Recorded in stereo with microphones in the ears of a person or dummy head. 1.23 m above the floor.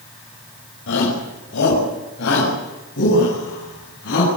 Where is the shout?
65° left (ahead or behind), 5 m; by 4.3 s 50° left (ahead or behind), 9 m.